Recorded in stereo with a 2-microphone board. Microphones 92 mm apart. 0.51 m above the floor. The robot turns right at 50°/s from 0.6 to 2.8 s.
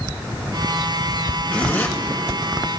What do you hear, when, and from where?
1.5 s a zipper: 15° left (ahead or behind), 2 m; by 1.9 s 35° left (ahead or behind), 2 m